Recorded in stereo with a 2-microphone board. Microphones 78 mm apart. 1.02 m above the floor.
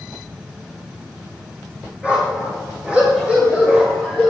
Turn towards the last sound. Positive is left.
turn(degrees=-5)  # may be behind; listen again after turning